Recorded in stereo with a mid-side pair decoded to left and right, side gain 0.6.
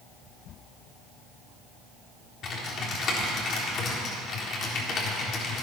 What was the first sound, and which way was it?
Typing on a keyboard, 50° left.